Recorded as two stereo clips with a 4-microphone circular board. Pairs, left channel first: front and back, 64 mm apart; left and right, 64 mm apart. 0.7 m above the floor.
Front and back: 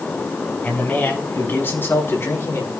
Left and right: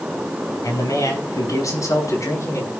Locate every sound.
0.6 s a man speaking: 70° left, 5.5 m; by 2.7 s 50° left, 5 m